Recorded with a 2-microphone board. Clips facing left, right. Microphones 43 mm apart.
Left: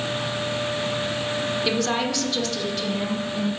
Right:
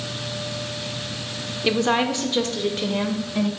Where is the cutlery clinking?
No cutlery clinking in this recording.